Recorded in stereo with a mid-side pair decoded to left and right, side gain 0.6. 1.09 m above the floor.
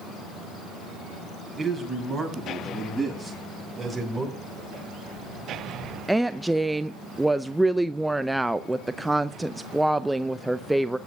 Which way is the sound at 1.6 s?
10° right.